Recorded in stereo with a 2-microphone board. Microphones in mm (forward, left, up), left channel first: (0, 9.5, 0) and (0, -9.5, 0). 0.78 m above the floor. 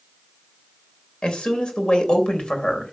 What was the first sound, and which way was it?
A woman speaking, 80° left.